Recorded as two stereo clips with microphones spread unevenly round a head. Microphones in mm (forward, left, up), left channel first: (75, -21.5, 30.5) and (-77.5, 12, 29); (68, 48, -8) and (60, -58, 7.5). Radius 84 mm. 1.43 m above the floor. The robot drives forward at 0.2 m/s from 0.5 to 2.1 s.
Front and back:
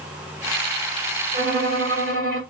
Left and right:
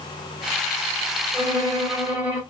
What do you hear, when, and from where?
1.3 s a violin: 160° right, 2.0 m